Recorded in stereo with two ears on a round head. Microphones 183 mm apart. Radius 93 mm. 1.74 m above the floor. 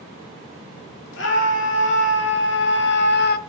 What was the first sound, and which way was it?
A scream, 60° left (ahead or behind).